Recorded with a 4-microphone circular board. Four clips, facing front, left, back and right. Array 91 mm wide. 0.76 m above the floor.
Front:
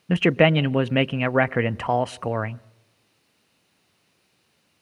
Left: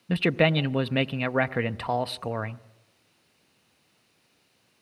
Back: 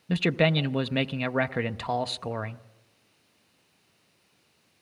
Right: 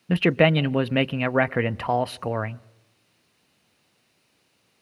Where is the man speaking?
25° right, 0.5 m.